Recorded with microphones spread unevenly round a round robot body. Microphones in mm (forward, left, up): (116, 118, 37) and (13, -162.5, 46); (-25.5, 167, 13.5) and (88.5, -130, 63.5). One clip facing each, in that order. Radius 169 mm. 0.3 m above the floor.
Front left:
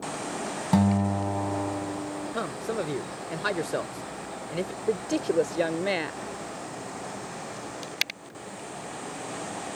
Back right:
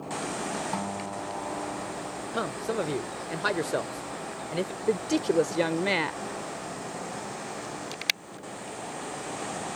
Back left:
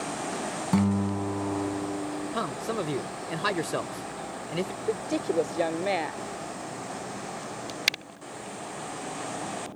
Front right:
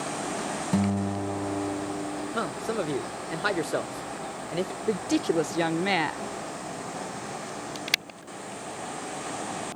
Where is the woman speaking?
40° right.